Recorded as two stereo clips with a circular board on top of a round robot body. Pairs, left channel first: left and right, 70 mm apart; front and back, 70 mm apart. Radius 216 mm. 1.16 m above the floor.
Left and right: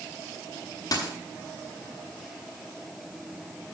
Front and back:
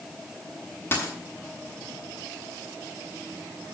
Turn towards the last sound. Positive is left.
turn(degrees=60)